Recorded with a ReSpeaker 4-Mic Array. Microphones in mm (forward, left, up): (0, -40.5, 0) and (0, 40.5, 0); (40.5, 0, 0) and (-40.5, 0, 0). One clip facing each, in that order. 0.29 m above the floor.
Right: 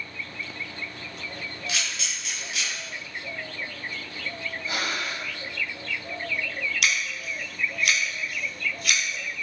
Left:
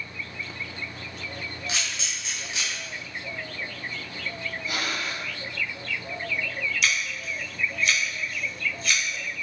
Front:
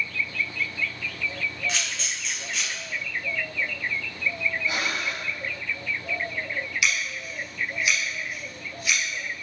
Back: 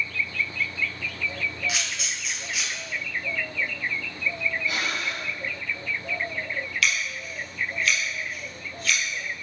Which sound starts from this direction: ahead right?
Breathing, at 4.7 s.